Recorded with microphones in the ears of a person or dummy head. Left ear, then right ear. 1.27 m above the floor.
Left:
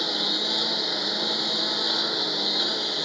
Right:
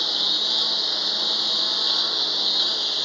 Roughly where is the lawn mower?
Right.